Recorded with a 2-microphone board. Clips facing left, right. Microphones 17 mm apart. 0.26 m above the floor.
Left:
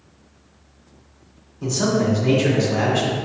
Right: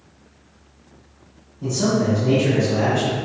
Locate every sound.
1.6 s a man speaking: 35° left (ahead or behind), 1.1 m